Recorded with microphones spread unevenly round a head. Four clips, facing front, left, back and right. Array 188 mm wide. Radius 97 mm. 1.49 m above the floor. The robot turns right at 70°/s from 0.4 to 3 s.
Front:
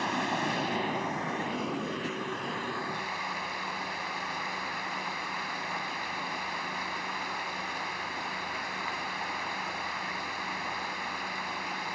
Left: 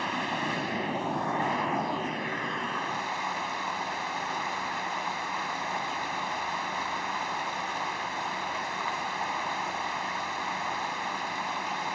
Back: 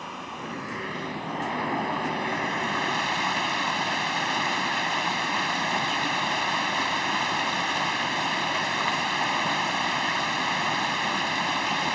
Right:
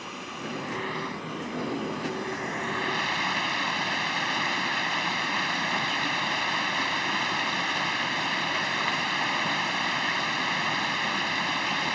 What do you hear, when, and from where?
0.0 s running water: 35° left; by 11.9 s 145° right